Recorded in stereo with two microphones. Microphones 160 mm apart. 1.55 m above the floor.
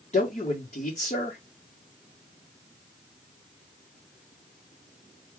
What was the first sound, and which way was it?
A man speaking, 45° left (ahead or behind).